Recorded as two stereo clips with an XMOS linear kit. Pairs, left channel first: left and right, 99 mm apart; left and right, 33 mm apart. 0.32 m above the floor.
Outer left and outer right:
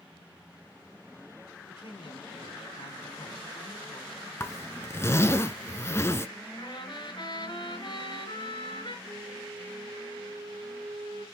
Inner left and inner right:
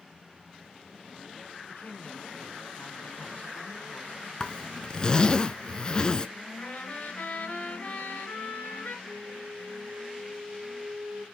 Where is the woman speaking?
60° left (ahead or behind), 2.5 m.